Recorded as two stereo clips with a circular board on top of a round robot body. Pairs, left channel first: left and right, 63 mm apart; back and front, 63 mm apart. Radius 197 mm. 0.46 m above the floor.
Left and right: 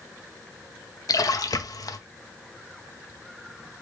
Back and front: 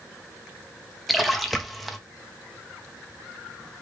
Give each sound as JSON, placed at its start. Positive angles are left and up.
{"t": 1.1, "sound": "a splash", "azimuth_deg": 90, "distance_m": 0.9}